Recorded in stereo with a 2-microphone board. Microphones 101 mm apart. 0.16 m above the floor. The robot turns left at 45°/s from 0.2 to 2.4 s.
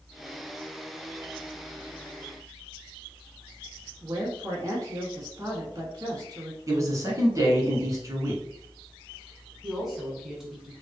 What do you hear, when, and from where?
4.0 s a woman speaking: 35° right (ahead or behind), 1.4 m
6.7 s a man speaking: 30° right (ahead or behind), 1.3 m
9.6 s a woman speaking: centre (ahead or behind), 1.4 m